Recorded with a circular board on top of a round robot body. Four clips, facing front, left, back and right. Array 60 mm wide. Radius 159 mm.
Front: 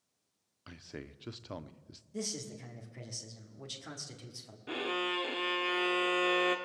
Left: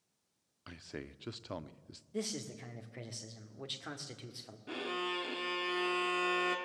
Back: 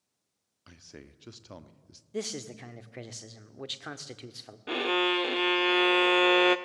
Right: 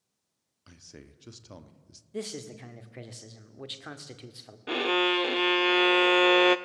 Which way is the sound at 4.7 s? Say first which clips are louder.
Right 12 dB, back 7 dB; 125° right.